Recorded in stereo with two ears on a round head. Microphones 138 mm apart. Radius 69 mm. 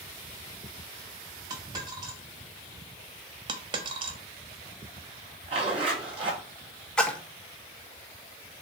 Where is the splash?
5° left (ahead or behind), 1.1 m.